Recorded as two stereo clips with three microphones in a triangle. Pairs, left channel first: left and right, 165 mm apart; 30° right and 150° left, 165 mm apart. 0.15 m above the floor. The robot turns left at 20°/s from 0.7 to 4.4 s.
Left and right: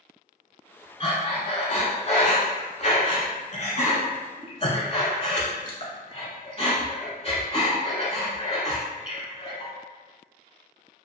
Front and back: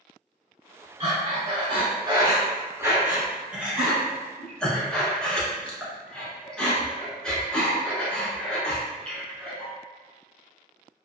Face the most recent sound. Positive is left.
turn(degrees=55)